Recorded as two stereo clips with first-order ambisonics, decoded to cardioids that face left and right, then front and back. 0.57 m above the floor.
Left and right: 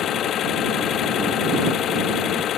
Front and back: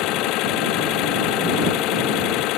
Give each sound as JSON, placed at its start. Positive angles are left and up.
{"t": 0.0, "sound": "an engine running", "azimuth_deg": 35}